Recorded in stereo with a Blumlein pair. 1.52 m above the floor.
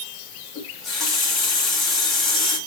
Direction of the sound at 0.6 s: 20° left.